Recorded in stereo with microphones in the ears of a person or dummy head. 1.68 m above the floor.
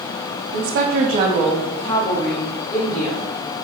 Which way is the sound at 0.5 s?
75° right (ahead or behind).